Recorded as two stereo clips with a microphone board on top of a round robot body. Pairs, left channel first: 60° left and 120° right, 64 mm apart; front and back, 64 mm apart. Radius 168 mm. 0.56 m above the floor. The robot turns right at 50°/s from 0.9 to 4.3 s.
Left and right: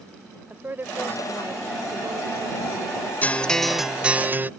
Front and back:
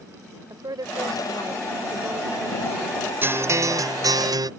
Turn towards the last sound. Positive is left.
turn(degrees=180)